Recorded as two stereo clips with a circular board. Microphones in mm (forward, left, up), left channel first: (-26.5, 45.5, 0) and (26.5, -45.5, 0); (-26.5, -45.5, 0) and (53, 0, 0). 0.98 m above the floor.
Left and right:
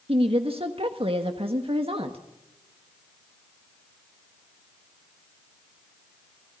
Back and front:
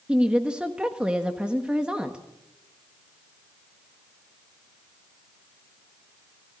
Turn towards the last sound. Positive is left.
turn(degrees=-50)